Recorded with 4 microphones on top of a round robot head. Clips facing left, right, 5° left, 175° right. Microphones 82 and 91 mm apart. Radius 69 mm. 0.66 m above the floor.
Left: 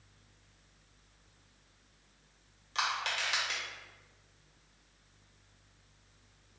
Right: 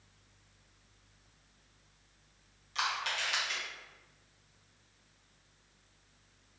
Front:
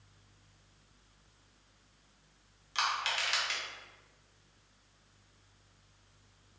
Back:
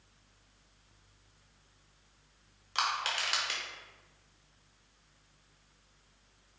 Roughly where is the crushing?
Behind left.